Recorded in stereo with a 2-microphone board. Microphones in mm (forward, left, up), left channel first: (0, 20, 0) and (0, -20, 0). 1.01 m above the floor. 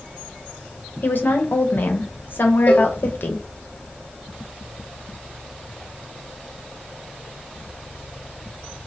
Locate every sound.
1.0 s a woman speaking: 60° left (ahead or behind), 0.7 m
2.7 s a cowbell: 45° left (ahead or behind), 1.2 m